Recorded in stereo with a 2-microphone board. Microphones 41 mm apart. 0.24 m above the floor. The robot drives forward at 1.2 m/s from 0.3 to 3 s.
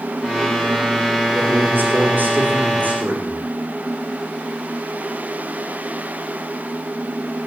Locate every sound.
1.4 s a man speaking: 55° right (ahead or behind), 4.5 m; by 3.5 s 40° right (ahead or behind), 5.5 m